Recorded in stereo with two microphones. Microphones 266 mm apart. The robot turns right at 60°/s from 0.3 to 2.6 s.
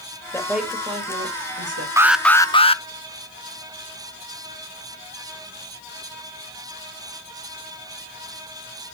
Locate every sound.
0.3 s a woman speaking: 165° left, 2.5 m; by 1.9 s 100° right, 2.5 m
2.0 s an alarm: 15° right, 0.6 m; by 2.8 s 25° left, 0.6 m